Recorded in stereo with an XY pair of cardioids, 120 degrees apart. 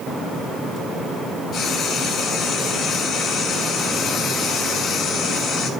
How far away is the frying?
About 3.5 m.